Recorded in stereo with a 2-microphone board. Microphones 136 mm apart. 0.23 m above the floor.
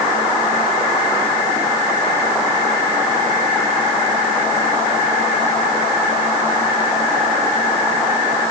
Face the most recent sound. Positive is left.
No sound to turn to.